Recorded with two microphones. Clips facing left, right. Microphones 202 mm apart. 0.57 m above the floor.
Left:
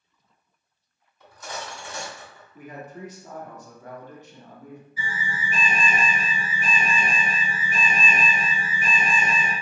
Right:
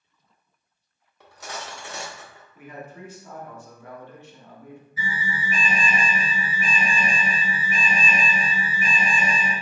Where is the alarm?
60° right (ahead or behind), 1.9 m.